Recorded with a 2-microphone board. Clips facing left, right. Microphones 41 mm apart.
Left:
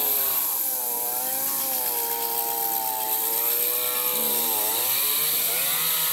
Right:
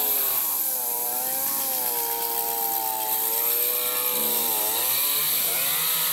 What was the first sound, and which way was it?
Only background noise.